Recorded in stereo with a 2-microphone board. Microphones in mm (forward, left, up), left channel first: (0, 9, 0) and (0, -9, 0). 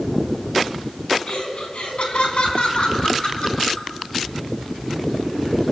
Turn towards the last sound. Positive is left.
turn(degrees=50)  # may be behind; listen again after turning